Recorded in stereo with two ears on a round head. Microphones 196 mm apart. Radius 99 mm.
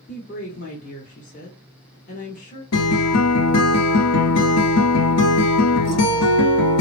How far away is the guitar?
About 1.3 m.